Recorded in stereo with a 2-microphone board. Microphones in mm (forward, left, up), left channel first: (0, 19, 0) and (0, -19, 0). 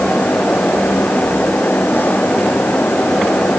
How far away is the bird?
I don't hear a bird.